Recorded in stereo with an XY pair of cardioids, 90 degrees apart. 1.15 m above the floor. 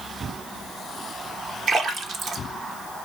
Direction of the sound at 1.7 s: 70° right.